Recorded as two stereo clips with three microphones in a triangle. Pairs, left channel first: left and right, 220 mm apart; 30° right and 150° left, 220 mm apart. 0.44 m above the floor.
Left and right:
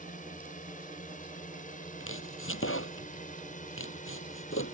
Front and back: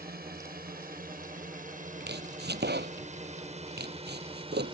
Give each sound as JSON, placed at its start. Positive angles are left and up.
{"t": 0.0, "sound": "a drone", "azimuth_deg": 130}
{"t": 2.0, "sound": "chopping", "azimuth_deg": 110}